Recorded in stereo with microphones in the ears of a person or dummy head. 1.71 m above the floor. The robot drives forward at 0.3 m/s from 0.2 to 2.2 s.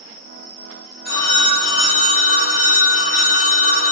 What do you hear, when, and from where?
1.1 s a phone ringing: 55° left (ahead or behind), 1.2 m; by 3.9 s 50° left (ahead or behind), 1.3 m